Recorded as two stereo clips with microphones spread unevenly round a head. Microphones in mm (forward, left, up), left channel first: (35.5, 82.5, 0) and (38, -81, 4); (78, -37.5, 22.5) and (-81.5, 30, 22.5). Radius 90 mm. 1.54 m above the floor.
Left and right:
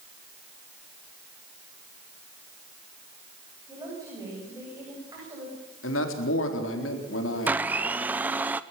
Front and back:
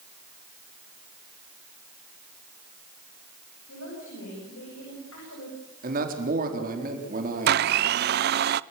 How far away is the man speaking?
About 4 m.